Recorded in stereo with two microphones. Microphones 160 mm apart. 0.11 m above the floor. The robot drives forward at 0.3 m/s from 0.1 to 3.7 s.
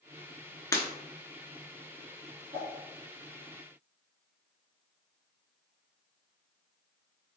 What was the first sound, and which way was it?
Breaking glass, 20° left (ahead or behind).